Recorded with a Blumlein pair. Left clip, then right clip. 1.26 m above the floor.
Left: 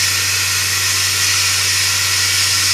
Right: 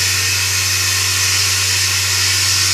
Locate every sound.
0.0 s running water: 60° left, 1.8 m